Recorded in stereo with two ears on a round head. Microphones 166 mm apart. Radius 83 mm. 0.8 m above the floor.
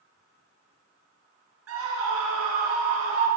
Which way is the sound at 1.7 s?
85° right.